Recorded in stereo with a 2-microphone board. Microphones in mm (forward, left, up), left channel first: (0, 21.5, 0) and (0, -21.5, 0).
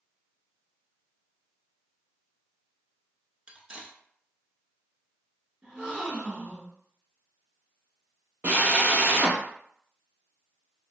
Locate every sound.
3.5 s cutlery clinking: 20° right (ahead or behind), 0.7 m
5.6 s a gasp: 25° right (ahead or behind), 1.5 m
8.4 s a drill: 45° right (ahead or behind), 1.1 m